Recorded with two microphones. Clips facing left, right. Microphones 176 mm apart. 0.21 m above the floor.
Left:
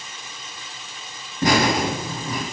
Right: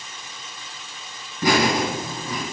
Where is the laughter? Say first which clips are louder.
Left 1 dB; 25° left (ahead or behind), 1.9 m; by 2.4 s 10° left (ahead or behind), 1.7 m.